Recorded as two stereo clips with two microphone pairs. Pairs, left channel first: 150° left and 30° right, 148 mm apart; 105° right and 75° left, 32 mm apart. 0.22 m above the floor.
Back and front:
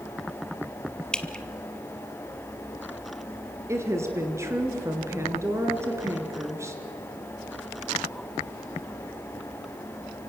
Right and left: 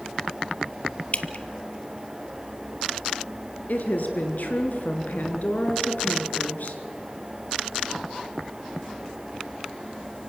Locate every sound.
1.1 s dripping: 130° right, 0.9 m
3.7 s a woman speaking: 100° right, 2.5 m